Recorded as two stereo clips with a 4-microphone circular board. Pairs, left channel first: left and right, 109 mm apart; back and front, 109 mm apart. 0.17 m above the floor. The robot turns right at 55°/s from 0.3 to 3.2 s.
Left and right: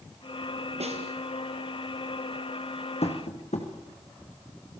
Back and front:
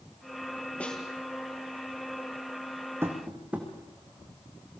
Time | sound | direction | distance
0.8 | a snare drum | 100° right | 3 m
3.0 | tapping | 70° left | 4.5 m